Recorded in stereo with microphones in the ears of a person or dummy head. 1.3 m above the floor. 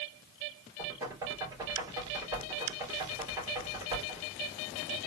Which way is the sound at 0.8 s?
25° right (ahead or behind).